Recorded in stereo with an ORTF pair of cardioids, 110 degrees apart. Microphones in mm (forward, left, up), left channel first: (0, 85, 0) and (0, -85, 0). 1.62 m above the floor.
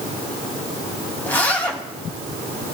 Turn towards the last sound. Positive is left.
turn(degrees=10)